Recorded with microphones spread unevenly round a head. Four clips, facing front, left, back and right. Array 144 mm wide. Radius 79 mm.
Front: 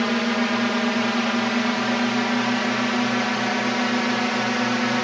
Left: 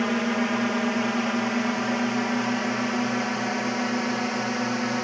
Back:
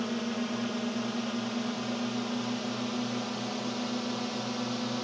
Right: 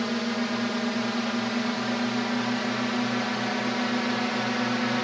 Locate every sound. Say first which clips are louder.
0.0 s a drone: left 3 dB, front 10 dB; 25° left; by 5.0 s 10° left